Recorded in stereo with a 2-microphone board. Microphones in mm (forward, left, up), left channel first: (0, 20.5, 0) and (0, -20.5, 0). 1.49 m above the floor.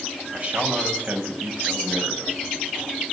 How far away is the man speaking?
About 8 m.